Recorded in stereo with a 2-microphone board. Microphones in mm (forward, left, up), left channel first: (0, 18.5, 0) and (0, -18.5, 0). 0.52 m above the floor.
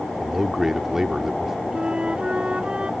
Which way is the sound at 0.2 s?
10° right (ahead or behind).